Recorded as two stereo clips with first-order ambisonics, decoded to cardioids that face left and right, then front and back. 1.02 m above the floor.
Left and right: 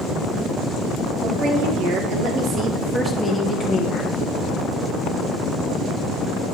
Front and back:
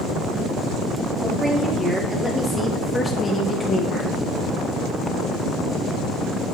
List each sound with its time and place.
1.2 s a woman speaking: 100° right, 1.6 m; by 4.2 s 60° left, 1.0 m